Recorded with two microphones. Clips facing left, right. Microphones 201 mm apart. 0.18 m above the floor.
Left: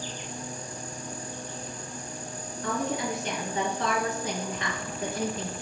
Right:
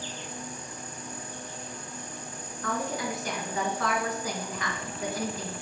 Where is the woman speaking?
25° left (ahead or behind), 3 m.